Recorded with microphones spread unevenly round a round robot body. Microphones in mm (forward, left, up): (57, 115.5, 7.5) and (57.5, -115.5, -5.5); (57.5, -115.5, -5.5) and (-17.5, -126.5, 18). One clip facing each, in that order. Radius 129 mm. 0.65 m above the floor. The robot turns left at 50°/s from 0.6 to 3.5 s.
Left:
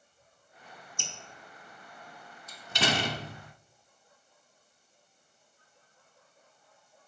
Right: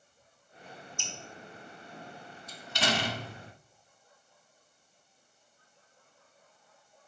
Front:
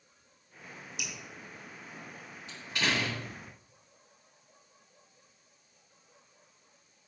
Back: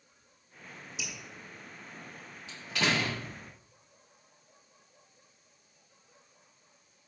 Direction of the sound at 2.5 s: 145° left.